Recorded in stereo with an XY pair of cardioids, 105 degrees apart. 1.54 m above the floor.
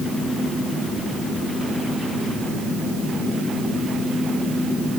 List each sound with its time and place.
Only background noise.